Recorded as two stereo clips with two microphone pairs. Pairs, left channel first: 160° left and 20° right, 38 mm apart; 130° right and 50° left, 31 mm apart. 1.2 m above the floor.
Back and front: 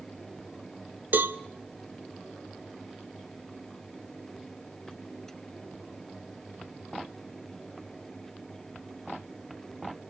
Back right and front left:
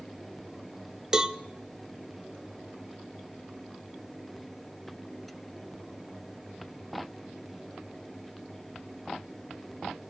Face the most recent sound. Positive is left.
turn(degrees=-15)